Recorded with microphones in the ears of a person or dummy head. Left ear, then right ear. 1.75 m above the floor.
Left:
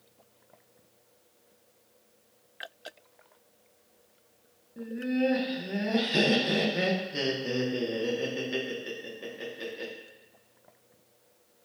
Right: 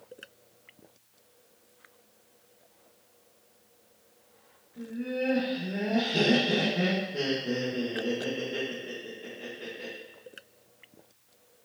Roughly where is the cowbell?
No cowbell in this recording.